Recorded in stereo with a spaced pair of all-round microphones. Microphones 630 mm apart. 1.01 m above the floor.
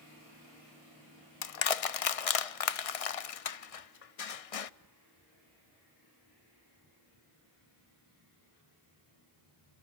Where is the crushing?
65° left (ahead or behind), 0.6 m.